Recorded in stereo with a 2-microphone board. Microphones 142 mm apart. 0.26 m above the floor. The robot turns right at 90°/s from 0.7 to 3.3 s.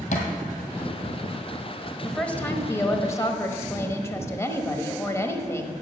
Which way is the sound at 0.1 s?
70° left (ahead or behind).